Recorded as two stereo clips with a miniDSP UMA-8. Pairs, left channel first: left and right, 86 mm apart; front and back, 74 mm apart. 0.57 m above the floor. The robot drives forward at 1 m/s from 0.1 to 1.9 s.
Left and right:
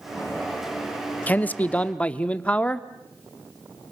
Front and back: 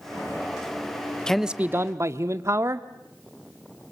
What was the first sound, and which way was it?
A man speaking, 65° left.